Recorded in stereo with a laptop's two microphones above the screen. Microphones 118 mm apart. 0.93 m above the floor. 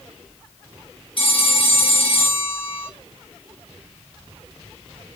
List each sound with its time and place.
1.2 s a phone ringing: 45° left (ahead or behind), 1.6 m